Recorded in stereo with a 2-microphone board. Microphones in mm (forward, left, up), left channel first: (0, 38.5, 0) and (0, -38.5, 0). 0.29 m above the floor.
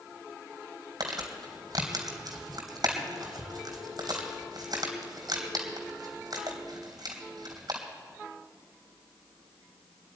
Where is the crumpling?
60° right (ahead or behind), 3 m.